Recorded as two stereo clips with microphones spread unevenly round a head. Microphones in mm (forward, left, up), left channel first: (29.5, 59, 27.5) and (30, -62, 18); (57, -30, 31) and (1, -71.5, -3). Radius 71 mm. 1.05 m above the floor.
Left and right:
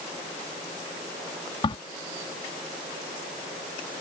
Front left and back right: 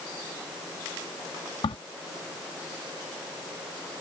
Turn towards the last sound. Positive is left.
turn(degrees=45)